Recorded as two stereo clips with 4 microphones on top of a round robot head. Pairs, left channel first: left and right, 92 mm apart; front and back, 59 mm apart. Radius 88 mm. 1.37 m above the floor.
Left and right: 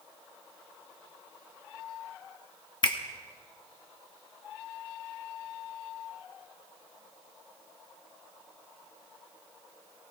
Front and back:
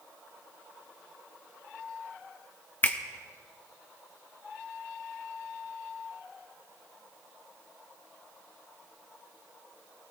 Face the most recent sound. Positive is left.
turn(degrees=55)